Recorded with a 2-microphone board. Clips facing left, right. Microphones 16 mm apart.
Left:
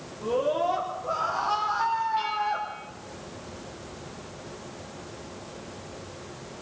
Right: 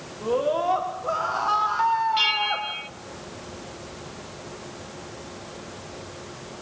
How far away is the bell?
About 0.6 m.